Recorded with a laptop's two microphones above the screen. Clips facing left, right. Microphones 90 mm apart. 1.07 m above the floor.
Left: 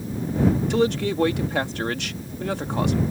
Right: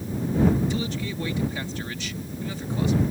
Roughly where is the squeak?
I don't hear a squeak.